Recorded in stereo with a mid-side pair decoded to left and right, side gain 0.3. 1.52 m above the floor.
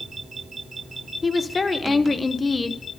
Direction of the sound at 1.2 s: 35° left.